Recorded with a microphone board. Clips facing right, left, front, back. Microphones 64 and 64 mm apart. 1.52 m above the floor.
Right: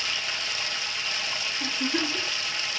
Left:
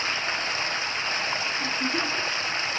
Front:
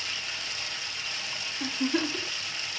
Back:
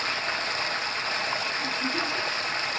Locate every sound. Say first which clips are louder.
0.0 s running water: left 4 dB, back 8 dB; 145° left, 0.7 m
1.6 s a giggle: left 1 dB, even; straight ahead, 3.5 m